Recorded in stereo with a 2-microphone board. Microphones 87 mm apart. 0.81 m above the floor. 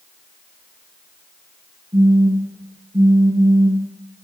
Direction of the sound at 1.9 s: 55° right (ahead or behind).